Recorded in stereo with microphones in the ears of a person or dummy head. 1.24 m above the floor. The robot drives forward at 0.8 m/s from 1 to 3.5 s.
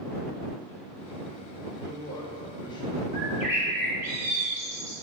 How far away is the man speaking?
About 4 m.